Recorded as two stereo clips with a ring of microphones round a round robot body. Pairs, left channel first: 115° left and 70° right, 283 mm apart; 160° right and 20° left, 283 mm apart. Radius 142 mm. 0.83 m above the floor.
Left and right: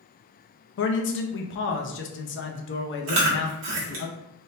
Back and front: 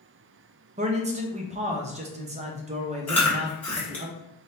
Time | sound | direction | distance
0.8 | a man speaking | 80° left | 0.6 m
3.1 | chewing | 75° right | 1.3 m